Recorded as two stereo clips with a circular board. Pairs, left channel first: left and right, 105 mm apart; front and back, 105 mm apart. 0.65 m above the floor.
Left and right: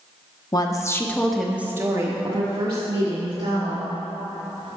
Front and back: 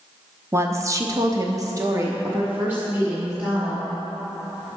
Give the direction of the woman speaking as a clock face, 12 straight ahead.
8 o'clock.